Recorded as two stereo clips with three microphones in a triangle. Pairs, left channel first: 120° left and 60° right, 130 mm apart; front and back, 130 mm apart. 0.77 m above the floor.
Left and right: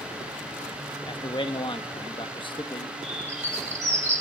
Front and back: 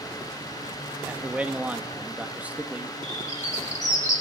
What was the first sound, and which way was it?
A man speaking, 105° left.